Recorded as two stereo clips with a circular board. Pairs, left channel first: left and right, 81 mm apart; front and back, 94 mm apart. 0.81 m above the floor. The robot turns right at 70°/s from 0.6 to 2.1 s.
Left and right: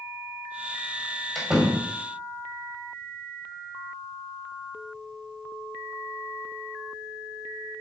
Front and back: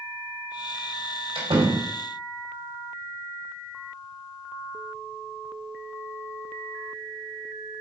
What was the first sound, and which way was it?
A door slam, 175° left.